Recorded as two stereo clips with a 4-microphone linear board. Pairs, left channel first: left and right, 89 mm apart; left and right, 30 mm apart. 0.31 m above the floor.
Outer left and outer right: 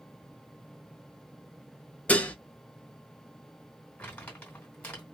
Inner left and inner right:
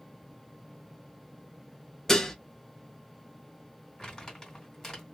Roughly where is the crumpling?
Centre.